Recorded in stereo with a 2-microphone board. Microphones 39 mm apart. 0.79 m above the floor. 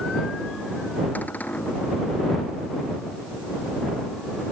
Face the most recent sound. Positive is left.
turn(degrees=45)  # may be behind; listen again after turning